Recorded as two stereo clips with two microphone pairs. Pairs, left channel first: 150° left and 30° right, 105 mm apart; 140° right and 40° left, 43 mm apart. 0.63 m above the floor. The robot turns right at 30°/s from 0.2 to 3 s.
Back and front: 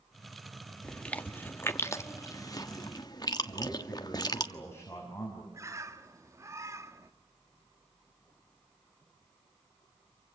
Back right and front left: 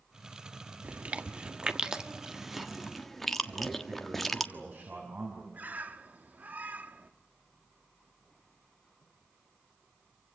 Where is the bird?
15° left, 1.2 m.